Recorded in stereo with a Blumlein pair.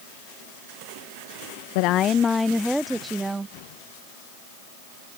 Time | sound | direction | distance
1.8 | a woman speaking | 50° left | ?